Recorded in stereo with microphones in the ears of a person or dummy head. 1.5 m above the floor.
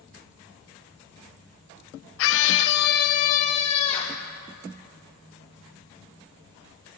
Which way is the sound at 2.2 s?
75° left (ahead or behind).